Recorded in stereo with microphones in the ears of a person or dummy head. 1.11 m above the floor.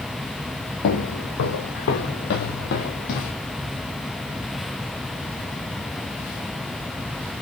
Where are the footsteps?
60° left (ahead or behind), 2 m; by 3.3 s 45° left (ahead or behind), 2.5 m.